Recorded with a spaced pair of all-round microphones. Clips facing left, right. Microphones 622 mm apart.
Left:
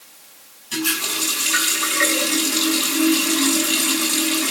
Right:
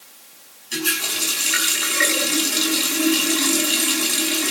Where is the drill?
I don't hear a drill.